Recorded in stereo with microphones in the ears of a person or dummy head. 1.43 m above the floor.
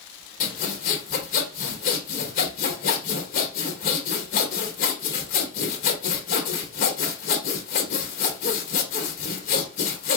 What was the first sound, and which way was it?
Sawing, 45° left (ahead or behind).